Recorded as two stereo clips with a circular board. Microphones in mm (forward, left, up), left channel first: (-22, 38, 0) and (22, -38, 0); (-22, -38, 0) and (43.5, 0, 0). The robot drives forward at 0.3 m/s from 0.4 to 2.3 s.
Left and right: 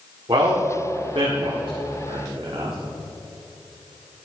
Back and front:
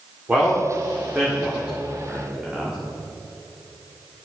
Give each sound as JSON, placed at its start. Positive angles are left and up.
{"t": 0.3, "sound": "a man speaking", "azimuth_deg": -40, "distance_m": 2.5}